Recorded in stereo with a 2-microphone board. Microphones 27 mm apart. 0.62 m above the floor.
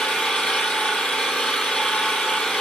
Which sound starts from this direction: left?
An engine running, at 0.0 s.